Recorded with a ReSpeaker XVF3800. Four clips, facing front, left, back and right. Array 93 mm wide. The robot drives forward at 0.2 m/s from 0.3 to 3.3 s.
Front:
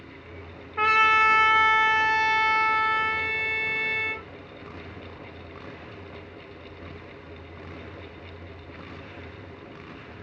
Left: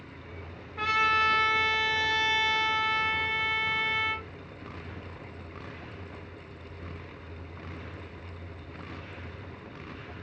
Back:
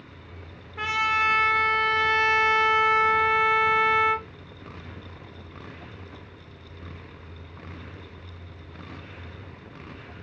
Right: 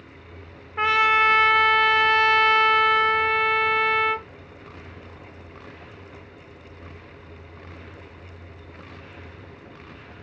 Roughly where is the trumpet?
Ahead right.